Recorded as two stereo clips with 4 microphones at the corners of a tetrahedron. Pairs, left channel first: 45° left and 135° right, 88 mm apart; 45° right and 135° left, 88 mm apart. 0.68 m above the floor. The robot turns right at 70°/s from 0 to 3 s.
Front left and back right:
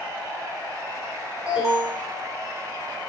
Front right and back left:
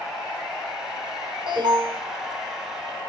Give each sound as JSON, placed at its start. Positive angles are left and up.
{"t": 1.5, "sound": "an alarm", "azimuth_deg": 145, "distance_m": 6.0}